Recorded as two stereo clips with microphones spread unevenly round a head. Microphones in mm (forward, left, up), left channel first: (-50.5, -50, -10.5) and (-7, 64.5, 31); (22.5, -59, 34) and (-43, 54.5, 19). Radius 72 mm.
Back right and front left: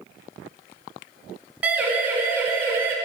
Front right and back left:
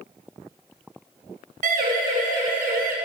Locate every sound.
1.6 s a siren: 145° left, 8.5 m; by 3.0 s 140° left, 7 m